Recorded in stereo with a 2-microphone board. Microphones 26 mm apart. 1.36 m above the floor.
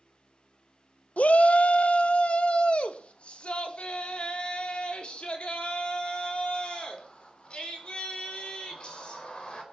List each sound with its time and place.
1.2 s a shout: 70° left (ahead or behind), 0.7 m; by 9.6 s 45° left (ahead or behind), 5 m